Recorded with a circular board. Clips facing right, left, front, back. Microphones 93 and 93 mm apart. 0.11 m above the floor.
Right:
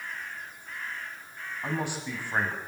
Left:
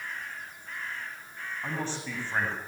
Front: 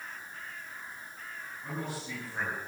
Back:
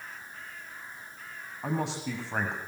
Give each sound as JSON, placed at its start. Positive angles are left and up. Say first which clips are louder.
{"t": 1.6, "sound": "a man speaking", "louder": "right 3 dB, back 7 dB", "azimuth_deg": -170, "distance_m": 6.5}